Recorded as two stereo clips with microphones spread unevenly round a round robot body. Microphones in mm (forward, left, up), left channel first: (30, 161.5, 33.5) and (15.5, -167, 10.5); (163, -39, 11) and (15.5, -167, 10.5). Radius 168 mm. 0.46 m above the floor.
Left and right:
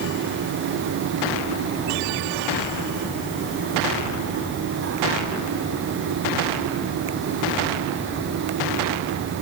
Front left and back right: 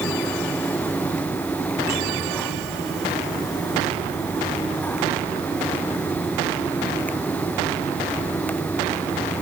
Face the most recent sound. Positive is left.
No sound to turn to.